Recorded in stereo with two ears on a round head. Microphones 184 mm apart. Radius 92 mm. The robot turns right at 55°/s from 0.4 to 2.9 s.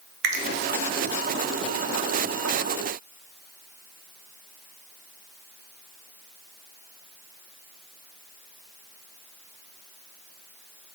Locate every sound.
0.2 s a finger snap: 45° right (ahead or behind), 0.6 m